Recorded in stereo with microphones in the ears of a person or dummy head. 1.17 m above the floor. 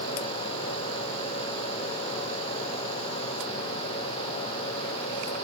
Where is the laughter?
No laughter in this recording.